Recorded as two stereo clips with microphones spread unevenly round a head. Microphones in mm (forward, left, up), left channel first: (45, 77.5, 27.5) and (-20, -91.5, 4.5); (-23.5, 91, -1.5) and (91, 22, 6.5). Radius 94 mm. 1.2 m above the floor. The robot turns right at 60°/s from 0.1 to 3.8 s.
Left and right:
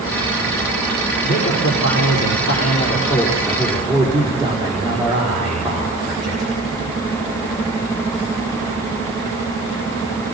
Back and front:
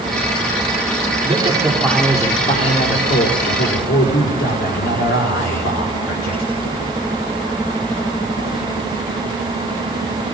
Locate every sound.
1.2 s a man speaking: 25° left, 4.5 m; by 6.5 s straight behind, 4.5 m